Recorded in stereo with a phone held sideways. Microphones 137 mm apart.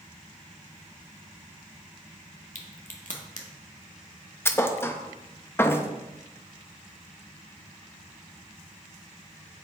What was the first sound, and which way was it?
A crack, 65° left (ahead or behind).